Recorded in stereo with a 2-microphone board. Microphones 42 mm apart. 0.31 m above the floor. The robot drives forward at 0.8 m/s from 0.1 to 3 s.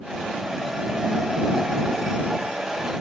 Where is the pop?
No pop in this recording.